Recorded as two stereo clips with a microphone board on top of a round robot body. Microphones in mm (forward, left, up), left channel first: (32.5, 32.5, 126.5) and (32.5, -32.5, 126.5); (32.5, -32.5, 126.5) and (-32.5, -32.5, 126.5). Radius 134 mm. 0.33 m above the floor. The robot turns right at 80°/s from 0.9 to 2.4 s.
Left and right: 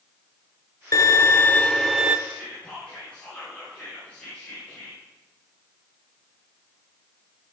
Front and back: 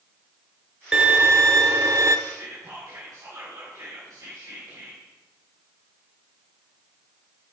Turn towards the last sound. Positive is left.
turn(degrees=160)